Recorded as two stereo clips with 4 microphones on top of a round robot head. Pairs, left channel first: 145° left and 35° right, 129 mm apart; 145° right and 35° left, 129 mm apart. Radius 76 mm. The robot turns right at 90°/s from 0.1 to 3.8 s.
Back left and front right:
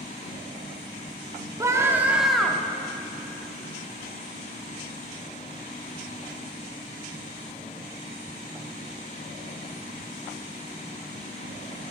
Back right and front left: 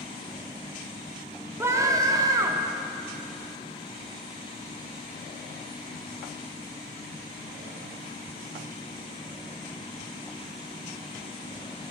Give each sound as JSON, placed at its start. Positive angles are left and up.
{"t": 1.6, "sound": "a scream", "azimuth_deg": -15, "distance_m": 0.7}